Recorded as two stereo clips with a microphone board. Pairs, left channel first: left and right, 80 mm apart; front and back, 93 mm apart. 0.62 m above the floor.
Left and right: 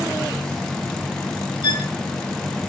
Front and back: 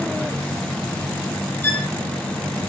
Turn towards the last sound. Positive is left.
turn(degrees=65)